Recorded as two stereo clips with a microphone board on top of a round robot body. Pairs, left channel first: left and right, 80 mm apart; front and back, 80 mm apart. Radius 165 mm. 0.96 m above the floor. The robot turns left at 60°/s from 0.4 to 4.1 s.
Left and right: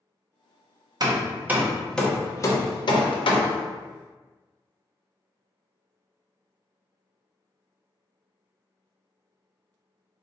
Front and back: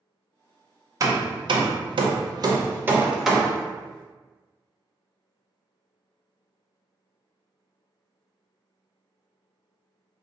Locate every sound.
1.0 s hammering: 130° right, 0.6 m; by 3.6 s 70° left, 0.6 m